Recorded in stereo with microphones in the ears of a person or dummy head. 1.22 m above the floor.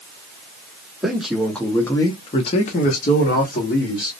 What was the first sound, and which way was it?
A man speaking, 5° right (ahead or behind).